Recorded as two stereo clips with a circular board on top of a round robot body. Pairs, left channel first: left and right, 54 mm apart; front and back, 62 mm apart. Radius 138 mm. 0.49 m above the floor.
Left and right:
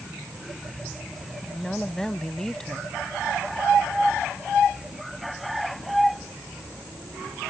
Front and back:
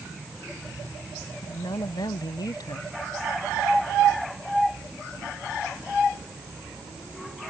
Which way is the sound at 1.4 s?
10° left.